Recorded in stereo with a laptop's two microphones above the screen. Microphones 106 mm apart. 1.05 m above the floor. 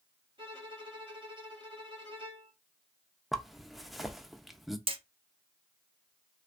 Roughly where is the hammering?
Right.